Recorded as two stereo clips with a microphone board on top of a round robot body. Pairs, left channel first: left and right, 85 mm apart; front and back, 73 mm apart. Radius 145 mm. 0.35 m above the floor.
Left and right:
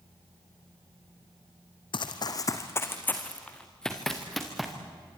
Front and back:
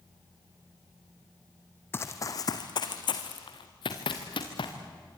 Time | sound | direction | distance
1.9 | running footsteps | 60° left | 1.3 m